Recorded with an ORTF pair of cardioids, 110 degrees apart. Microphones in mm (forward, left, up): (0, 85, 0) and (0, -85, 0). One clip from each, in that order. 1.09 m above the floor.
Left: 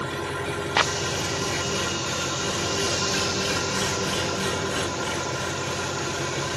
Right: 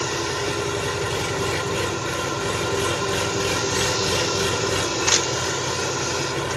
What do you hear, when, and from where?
0.0 s an engine running: 35° right, 2.5 m